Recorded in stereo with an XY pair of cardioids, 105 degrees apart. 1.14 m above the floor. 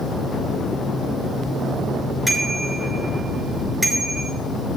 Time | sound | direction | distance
2.3 | a bicycle bell | 5° right | 6.5 m